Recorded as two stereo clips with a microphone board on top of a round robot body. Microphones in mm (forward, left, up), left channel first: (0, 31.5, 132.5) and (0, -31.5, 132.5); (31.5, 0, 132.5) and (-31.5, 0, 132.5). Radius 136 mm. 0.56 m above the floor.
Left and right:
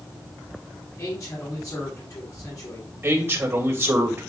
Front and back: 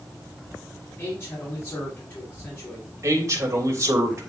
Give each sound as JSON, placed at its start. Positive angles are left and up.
{"t": 1.0, "sound": "a man speaking", "azimuth_deg": 55, "distance_m": 4.0}
{"t": 3.0, "sound": "a man speaking", "azimuth_deg": -140, "distance_m": 3.0}